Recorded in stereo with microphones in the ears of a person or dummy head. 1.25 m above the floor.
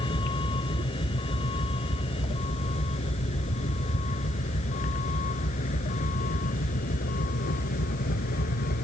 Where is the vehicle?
30° left (ahead or behind); by 8.8 s 50° left (ahead or behind).